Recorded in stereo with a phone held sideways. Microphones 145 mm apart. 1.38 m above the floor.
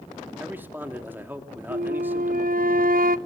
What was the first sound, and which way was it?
A man speaking, 15° right (ahead or behind).